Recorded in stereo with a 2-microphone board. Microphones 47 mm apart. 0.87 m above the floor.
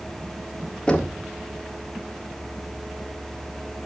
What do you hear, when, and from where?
0.9 s knocking: 20° left (ahead or behind), 1.7 m